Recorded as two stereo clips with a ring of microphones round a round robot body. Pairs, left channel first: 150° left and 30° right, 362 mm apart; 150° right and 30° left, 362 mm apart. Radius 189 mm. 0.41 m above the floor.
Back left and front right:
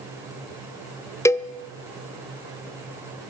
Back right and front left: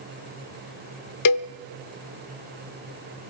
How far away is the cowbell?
About 0.7 m.